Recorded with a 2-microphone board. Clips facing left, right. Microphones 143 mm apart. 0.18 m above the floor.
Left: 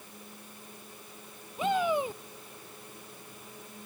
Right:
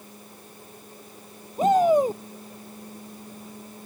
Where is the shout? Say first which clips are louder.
Right 10 dB; 40° right (ahead or behind).